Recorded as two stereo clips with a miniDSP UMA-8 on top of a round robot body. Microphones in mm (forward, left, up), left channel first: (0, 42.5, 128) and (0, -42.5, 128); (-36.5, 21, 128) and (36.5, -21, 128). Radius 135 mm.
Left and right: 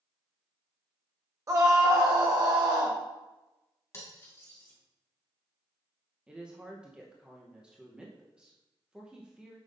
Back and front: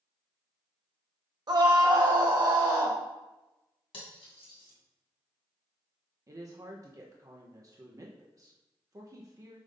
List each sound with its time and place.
1.5 s a scream: 45° right, 1.1 m; by 3.0 s 60° right, 2.0 m
3.9 s cutlery clinking: 150° left, 2.5 m
6.3 s a woman speaking: 20° right, 1.1 m